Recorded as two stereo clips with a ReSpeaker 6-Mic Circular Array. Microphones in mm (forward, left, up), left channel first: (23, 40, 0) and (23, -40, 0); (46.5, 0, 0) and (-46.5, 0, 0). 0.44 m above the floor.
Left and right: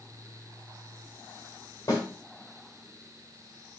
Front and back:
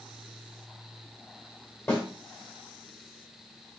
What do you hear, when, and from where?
1.9 s a snare drum: 60° left, 2.5 m